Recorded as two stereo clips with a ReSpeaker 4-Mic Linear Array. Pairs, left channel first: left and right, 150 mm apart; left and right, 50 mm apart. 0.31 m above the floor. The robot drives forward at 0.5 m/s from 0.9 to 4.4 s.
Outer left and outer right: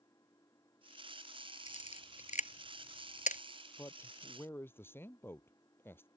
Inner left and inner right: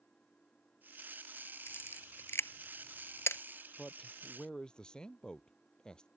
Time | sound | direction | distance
0.0 | an engine running | 20° left (ahead or behind) | ?
1.7 | a camera shutter | 50° left (ahead or behind) | ?
3.8 | a man speaking | 15° left (ahead or behind) | ?